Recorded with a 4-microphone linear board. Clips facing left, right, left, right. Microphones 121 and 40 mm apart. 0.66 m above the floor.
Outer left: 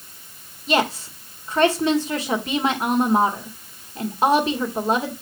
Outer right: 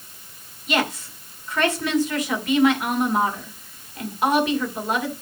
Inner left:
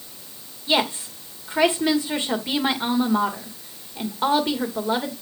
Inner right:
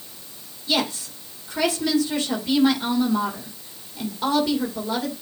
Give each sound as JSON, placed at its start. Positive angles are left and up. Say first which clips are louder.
{"t": 0.7, "sound": "a woman speaking", "louder": "outer left 3 dB, inner left 2 dB", "side_deg": 30, "distance_m": 2.0}